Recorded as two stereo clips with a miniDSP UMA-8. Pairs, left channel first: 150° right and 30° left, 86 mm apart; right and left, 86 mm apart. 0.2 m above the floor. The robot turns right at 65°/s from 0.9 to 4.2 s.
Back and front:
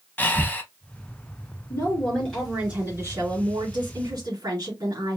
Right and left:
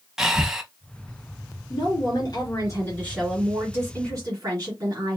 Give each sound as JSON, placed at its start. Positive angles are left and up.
{"t": 0.2, "sound": "breathing", "azimuth_deg": 165, "distance_m": 0.6}
{"t": 1.7, "sound": "a woman speaking", "azimuth_deg": -110, "distance_m": 3.0}